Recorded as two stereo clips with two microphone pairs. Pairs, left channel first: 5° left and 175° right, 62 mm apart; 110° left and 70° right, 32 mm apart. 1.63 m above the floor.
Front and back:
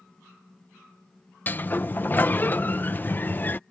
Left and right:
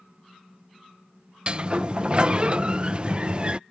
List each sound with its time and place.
1.5 s a sliding door: 40° right